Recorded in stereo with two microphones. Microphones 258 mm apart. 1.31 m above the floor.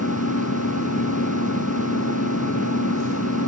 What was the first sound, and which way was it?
An engine running, 75° left (ahead or behind).